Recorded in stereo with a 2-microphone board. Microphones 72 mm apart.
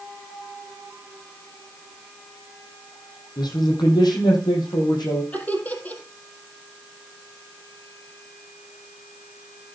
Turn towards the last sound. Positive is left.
turn(degrees=20)  # may be behind; listen again after turning